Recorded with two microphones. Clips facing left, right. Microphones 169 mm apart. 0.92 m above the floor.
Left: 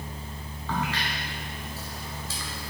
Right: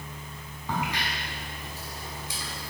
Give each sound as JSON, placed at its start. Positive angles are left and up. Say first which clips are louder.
{"t": 0.7, "sound": "a crack", "louder": "left 1 dB", "side_deg": -15, "distance_m": 1.7}